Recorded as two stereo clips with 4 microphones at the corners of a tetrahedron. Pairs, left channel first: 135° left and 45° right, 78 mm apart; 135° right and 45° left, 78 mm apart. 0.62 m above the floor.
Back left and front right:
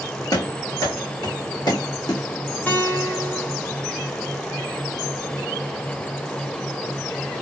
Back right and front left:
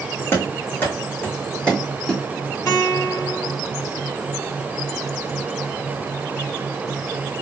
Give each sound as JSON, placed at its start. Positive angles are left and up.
{"t": 0.3, "sound": "running footsteps", "azimuth_deg": 170, "distance_m": 2.5}
{"t": 2.7, "sound": "a guitar", "azimuth_deg": -165, "distance_m": 2.0}